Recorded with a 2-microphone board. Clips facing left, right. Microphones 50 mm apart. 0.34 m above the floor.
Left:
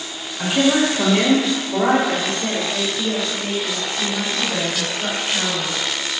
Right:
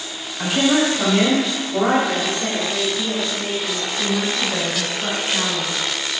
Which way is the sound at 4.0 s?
Centre (ahead or behind).